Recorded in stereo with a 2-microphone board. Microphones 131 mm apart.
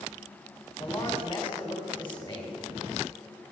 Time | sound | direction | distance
0.8 | a man speaking | 15° left (ahead or behind) | 2.5 m